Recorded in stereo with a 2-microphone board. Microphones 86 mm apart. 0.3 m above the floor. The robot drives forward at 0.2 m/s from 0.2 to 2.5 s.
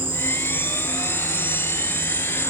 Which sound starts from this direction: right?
An insect, at 0.0 s.